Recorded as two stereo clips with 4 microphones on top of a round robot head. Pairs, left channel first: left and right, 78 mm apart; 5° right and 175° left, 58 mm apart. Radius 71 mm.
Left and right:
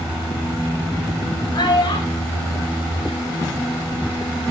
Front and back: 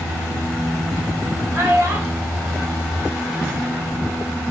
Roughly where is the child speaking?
Behind left.